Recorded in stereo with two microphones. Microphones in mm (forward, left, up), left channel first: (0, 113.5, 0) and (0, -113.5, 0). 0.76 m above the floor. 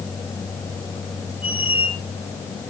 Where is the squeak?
80° left, 3.5 m.